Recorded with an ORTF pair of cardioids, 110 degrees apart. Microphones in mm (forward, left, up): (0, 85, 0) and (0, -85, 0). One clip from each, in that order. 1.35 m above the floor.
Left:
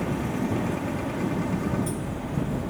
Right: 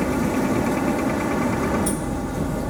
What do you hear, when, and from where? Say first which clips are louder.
0.0 s a machine running: right 7 dB; 55° right